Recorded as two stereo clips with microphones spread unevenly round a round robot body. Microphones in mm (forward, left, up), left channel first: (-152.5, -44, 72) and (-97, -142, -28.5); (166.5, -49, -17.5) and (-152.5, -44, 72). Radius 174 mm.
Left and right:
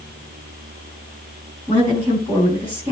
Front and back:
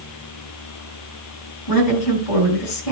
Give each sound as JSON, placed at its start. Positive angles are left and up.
{"t": 1.7, "sound": "a woman speaking", "azimuth_deg": 5, "distance_m": 7.0}